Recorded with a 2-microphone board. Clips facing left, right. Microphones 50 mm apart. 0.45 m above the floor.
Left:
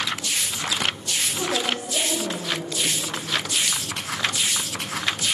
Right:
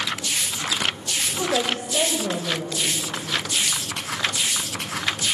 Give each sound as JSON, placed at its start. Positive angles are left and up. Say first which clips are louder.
{"t": 1.4, "sound": "a woman speaking", "louder": "right 3 dB", "side_deg": -45, "distance_m": 2.5}